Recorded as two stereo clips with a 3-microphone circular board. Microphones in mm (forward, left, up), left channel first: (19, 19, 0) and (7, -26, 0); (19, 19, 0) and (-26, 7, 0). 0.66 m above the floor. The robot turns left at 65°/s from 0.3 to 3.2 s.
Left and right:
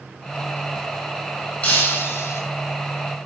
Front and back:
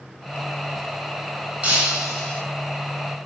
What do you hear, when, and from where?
1.6 s breaking glass: 125° left, 5 m; by 2.4 s 75° left, 5 m